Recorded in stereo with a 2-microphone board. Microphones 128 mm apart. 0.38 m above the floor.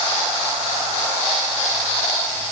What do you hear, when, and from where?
Only background noise.